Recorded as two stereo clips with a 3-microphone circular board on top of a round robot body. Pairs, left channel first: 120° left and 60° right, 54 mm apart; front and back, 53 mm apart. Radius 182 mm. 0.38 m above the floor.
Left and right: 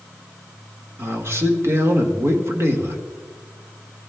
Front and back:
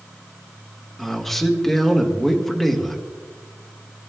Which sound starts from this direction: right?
A man speaking, at 1.0 s.